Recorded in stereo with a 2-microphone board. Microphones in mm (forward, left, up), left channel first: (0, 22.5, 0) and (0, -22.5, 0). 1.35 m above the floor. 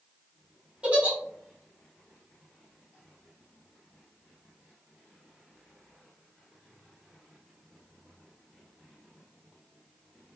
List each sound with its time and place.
0.8 s a giggle: 30° right (ahead or behind), 1.1 m